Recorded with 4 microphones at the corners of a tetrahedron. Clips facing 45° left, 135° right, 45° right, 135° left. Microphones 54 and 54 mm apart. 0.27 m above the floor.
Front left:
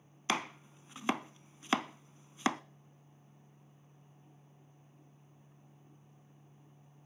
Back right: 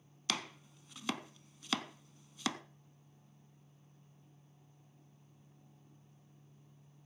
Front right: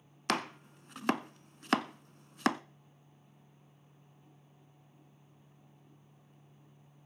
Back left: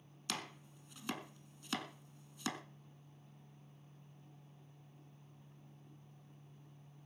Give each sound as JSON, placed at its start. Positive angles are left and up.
{"t": 0.3, "sound": "chopping", "azimuth_deg": -15, "distance_m": 0.6}